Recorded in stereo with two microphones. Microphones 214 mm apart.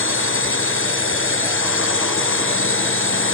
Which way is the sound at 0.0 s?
75° left (ahead or behind).